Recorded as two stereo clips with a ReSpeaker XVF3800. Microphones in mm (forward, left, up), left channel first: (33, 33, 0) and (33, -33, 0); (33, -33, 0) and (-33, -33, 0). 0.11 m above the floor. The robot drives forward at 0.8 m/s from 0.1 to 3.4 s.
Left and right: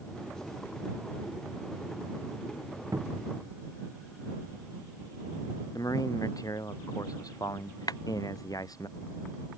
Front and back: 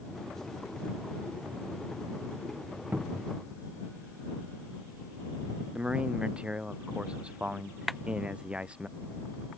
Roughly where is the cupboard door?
Behind right.